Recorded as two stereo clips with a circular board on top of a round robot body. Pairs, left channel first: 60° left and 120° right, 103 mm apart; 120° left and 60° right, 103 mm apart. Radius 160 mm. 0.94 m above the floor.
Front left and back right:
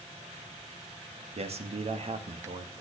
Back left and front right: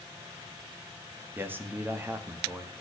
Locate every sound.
1.4 s a man speaking: 130° right, 2.0 m